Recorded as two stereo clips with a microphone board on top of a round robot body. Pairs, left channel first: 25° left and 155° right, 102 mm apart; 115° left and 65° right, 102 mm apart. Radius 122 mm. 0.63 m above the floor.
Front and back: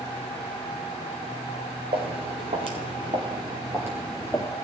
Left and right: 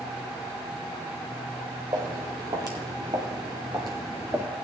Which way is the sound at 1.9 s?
125° right.